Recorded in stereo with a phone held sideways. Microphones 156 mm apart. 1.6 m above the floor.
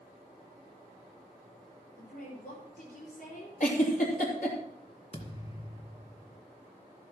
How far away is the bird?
No bird in this recording.